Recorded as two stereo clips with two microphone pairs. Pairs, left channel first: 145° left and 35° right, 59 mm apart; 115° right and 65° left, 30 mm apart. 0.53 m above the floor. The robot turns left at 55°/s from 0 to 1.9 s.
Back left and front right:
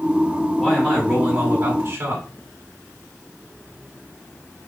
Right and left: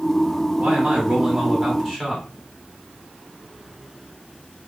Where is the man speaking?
55° left, 1.3 m; by 2.2 s 15° right, 1.3 m.